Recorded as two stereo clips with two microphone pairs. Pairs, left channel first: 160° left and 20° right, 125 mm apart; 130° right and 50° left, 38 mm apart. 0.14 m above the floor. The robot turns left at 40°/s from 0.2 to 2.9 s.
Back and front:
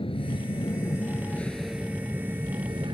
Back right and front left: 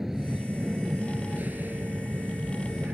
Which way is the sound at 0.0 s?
125° left.